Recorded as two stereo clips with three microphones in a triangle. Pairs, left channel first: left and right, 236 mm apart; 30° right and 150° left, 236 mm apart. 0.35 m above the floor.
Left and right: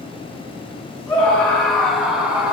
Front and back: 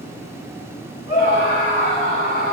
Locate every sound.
1.1 s a scream: 20° left, 2.5 m; by 2.5 s 5° right, 2 m